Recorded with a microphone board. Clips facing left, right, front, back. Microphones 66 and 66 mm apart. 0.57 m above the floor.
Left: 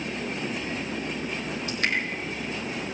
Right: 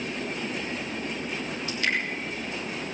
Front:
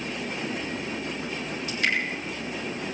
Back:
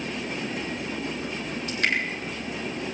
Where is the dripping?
140° left, 8 m.